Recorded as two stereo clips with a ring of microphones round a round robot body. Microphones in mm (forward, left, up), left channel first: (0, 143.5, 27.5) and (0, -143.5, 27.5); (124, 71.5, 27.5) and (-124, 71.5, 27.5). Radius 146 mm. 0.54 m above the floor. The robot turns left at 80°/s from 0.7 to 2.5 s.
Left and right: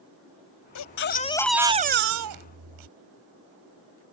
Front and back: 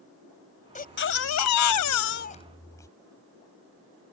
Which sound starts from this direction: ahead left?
A baby crying, at 0.8 s.